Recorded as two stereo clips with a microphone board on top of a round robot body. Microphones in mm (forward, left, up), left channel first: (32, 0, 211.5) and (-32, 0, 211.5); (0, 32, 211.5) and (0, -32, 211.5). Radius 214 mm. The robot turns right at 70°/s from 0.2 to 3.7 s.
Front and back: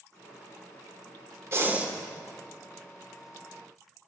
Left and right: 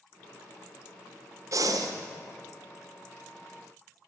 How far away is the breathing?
About 1.0 m.